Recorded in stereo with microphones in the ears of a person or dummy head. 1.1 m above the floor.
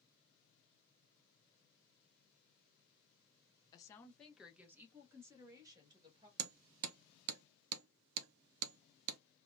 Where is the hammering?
70° right (ahead or behind), 0.5 m.